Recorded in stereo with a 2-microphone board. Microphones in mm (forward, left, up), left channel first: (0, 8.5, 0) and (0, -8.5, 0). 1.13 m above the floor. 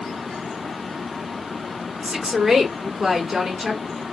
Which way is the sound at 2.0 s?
65° right (ahead or behind).